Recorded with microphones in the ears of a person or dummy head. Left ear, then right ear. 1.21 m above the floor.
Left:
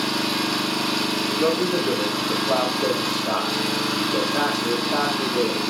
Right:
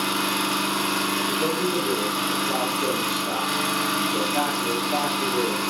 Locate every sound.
0.0 s an engine running: 45° right (ahead or behind), 3 m
1.3 s a man speaking: 10° left (ahead or behind), 3 m